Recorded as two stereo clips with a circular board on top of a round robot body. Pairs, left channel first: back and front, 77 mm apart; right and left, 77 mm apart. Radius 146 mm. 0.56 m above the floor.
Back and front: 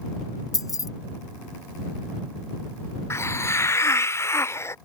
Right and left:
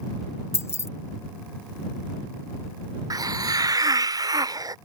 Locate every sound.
0.5 s keys jangling: 140° right
3.1 s a hiss: 125° left